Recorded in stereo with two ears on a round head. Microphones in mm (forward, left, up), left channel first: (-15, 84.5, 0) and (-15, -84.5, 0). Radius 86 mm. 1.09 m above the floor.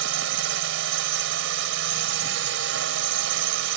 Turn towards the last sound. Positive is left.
turn(degrees=-75)  # may be behind; listen again after turning